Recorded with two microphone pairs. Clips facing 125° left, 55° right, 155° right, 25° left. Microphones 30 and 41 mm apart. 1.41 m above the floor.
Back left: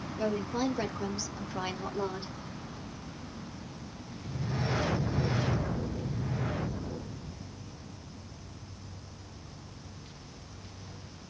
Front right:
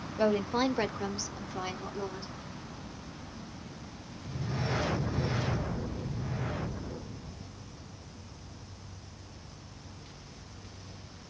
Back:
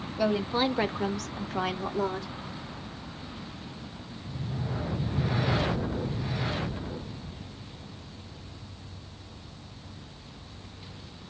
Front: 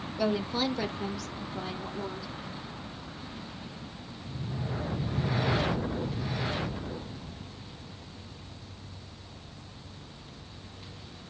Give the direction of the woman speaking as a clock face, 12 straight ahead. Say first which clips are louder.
Front right 4 dB, back 3 dB; 2 o'clock.